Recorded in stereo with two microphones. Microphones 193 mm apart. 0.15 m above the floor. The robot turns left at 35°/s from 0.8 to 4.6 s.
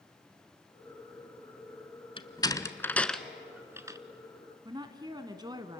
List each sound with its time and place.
2.2 s a door slam: 25° left (ahead or behind), 1.0 m; by 4.0 s 20° right (ahead or behind), 1.0 m
4.7 s a woman speaking: 20° right (ahead or behind), 1.5 m